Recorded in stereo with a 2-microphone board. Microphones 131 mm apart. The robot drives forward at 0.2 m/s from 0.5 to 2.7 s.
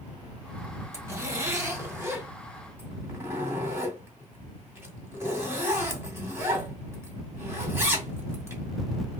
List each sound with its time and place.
0.9 s a zipper: 20° right (ahead or behind), 1.6 m